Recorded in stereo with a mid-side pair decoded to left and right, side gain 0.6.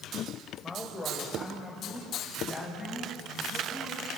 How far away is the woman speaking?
About 4 m.